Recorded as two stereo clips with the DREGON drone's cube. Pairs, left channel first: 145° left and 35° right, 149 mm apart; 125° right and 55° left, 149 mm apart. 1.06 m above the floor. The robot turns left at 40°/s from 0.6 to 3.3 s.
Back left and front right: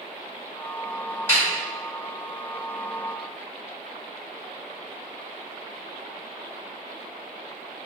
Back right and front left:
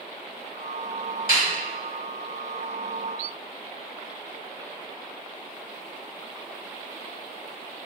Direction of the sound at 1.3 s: 140° right.